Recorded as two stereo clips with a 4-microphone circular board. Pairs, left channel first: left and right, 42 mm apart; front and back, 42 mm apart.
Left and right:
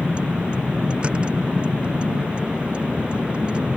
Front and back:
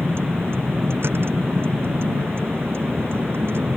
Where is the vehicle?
155° right.